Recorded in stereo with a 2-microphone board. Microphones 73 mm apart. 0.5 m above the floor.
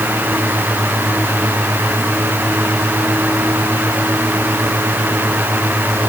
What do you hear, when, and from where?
Only background noise.